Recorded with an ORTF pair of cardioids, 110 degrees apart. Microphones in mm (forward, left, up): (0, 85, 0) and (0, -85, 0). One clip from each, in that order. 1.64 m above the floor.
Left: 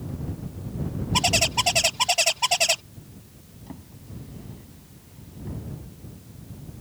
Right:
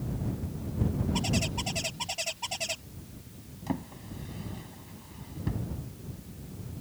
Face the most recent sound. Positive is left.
turn(degrees=-60)